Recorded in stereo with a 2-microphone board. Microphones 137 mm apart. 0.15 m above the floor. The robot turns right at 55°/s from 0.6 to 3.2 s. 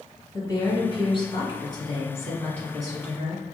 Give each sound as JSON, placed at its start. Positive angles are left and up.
{"t": 0.3, "sound": "a woman speaking", "azimuth_deg": 60, "distance_m": 1.8}